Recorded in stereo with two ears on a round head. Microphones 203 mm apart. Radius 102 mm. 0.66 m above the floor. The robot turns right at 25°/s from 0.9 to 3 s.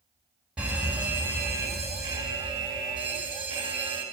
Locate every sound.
0.6 s a fire alarm: 5° right (ahead or behind), 1.9 m; by 4.0 s 20° right (ahead or behind), 1.9 m